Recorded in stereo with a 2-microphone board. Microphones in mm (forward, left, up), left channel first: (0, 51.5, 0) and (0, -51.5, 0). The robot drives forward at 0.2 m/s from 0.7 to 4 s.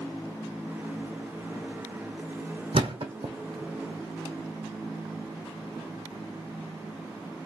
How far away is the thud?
About 0.8 m.